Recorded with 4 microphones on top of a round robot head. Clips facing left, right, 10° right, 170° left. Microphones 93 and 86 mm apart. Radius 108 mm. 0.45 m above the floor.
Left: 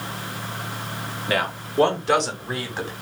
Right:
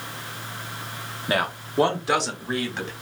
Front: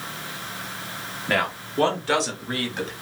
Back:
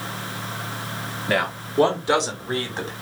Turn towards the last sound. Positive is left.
turn(degrees=155)